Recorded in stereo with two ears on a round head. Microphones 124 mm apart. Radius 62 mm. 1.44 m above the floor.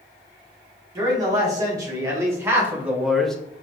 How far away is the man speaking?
About 1.9 m.